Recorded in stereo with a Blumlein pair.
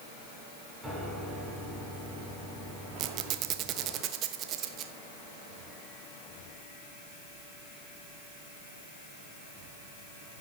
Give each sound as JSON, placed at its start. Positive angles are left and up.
{"t": 0.8, "sound": "a piano", "azimuth_deg": -5, "distance_m": 6.5}
{"t": 3.0, "sound": "a squeak", "azimuth_deg": -35, "distance_m": 1.2}